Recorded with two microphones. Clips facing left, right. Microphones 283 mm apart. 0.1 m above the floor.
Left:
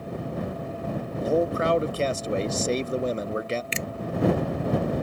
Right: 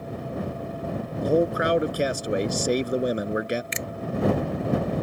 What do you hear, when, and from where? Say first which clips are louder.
1.2 s a man speaking: right 2 dB; 20° right (ahead or behind)
3.7 s a finger snap: left 1 dB; 35° left (ahead or behind)